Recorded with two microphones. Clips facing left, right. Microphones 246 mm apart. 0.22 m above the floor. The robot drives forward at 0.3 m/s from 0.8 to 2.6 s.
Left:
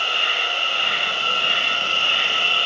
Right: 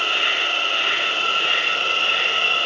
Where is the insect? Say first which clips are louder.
Right 2 dB; 85° right, 0.7 m; by 2.7 s 55° right (ahead or behind), 0.9 m.